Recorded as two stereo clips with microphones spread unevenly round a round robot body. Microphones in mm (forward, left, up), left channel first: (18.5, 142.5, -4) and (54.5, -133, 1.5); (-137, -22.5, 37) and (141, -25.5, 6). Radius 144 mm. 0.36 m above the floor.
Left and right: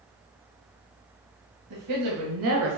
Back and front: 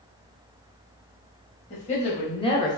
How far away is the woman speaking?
About 1.9 m.